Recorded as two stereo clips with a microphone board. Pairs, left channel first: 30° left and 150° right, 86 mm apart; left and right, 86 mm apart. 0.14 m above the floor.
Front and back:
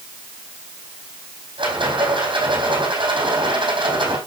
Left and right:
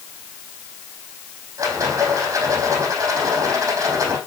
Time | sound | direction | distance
1.6 | a rattle | 140° right | 4 m